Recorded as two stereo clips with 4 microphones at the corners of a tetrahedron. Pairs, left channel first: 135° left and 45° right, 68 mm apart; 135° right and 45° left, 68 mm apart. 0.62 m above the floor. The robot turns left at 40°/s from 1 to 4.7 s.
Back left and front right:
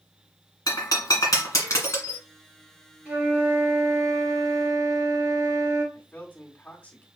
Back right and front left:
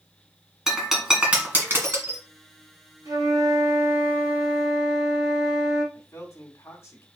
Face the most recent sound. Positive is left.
turn(degrees=-170)